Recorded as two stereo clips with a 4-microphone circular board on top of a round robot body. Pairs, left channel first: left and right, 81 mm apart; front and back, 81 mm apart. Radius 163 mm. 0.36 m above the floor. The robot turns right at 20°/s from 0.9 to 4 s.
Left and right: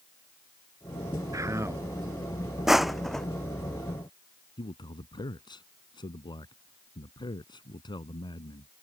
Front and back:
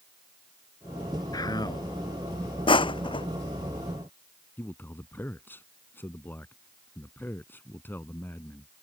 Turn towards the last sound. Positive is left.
turn(degrees=65)